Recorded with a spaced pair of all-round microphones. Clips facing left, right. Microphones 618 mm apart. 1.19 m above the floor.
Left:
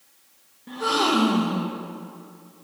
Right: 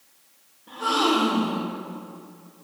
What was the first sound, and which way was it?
A gasp, 50° left (ahead or behind).